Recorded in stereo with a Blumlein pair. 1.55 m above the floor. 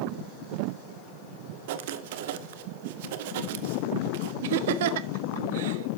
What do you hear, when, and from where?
1.7 s writing: 50° right, 1.1 m
4.4 s laughter: 55° right, 1.2 m